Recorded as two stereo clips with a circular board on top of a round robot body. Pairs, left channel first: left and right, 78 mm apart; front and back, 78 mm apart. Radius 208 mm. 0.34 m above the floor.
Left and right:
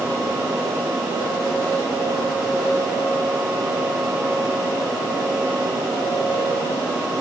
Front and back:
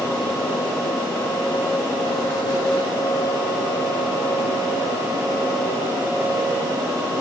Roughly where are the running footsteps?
I don't hear running footsteps.